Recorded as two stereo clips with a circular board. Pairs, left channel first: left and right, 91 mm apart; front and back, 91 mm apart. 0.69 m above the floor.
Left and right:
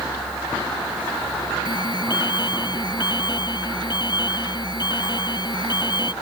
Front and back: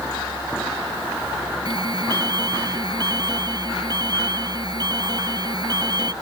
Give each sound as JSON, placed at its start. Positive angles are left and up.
{"t": 1.6, "sound": "an alarm", "azimuth_deg": 135}